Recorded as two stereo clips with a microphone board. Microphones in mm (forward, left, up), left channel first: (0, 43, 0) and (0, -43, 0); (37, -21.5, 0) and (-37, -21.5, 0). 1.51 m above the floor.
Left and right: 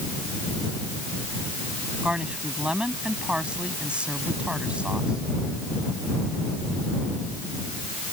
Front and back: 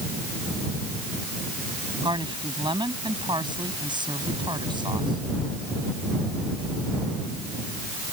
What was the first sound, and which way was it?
A woman speaking, 170° right.